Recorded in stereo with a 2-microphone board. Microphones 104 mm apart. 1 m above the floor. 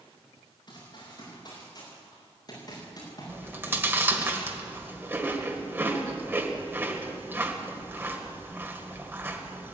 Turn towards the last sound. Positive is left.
turn(degrees=-20)  # may be behind; listen again after turning